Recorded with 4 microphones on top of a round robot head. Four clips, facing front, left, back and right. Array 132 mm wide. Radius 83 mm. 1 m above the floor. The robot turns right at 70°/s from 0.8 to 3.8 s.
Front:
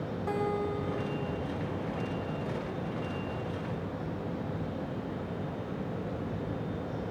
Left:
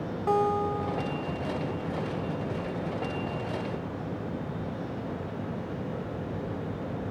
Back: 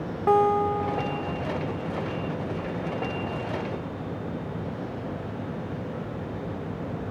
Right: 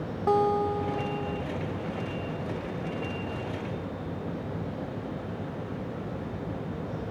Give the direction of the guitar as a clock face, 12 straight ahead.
5 o'clock.